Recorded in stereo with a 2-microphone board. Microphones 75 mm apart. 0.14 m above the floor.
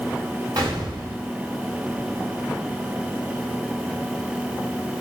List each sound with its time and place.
0.6 s a gunshot: 55° right (ahead or behind), 10 m